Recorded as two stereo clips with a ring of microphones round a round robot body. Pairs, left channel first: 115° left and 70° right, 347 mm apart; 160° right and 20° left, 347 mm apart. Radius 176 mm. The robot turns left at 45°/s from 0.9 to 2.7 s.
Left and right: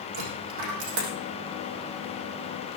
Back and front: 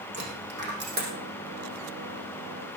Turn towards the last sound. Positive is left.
turn(degrees=-120)